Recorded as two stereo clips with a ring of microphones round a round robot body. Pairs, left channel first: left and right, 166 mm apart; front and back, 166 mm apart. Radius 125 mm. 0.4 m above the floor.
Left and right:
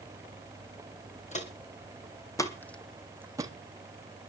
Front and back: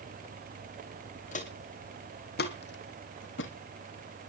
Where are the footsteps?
45° left, 2.5 m; by 3.5 s 25° right, 1.5 m.